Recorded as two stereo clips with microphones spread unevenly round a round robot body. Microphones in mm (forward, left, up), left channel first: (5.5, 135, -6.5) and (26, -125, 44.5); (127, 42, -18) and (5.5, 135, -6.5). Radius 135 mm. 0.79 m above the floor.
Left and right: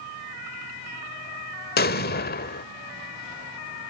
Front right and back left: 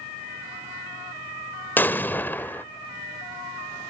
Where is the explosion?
40° left, 0.6 m.